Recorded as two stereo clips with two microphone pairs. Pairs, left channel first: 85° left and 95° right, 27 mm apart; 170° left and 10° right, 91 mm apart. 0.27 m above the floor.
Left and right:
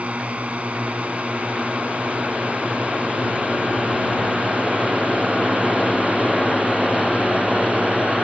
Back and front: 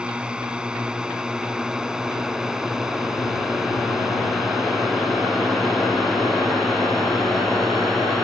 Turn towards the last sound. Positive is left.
turn(degrees=-105)